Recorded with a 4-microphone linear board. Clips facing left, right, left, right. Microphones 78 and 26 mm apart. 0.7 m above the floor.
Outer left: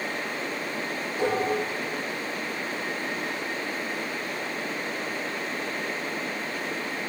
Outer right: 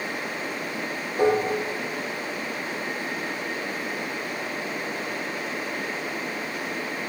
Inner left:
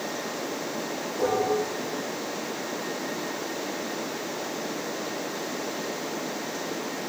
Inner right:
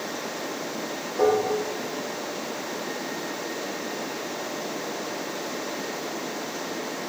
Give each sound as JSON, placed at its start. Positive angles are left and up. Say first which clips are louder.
{"t": 1.2, "sound": "dishes clattering", "louder": "outer right 4 dB, inner right 3 dB", "side_deg": -45, "distance_m": 0.6}